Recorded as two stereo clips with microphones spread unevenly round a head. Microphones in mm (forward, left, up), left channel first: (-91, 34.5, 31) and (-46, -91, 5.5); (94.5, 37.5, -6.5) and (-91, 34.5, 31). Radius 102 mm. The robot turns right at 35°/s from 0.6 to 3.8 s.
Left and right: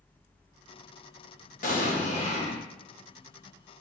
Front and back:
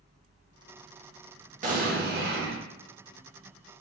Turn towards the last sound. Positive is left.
turn(degrees=-155)